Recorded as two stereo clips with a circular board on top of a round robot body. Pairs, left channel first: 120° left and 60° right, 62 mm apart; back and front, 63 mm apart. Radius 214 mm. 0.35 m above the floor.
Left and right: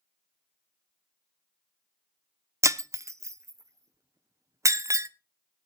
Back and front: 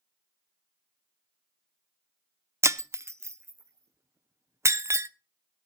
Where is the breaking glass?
35° right, 1.0 m.